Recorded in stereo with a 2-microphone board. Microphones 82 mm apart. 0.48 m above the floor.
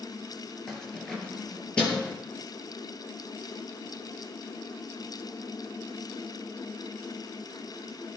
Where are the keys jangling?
5° left (ahead or behind), 5 m; by 2.1 s 15° left (ahead or behind), 6.5 m.